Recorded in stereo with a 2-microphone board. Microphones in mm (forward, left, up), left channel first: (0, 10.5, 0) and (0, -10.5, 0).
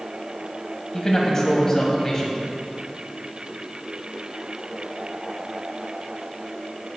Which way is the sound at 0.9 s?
25° left (ahead or behind).